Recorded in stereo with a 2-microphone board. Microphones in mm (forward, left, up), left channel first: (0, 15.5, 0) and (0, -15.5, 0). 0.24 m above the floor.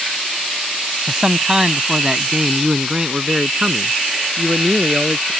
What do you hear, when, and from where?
1.1 s a man speaking: 20° right (ahead or behind)